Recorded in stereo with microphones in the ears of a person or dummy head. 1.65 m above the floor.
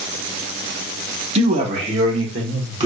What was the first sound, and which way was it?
A man speaking, 40° right (ahead or behind).